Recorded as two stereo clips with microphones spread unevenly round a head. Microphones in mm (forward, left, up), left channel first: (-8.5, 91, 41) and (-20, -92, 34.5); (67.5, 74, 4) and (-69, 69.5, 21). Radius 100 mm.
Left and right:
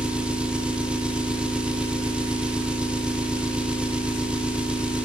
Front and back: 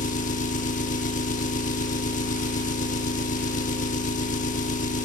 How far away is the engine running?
About 0.9 m.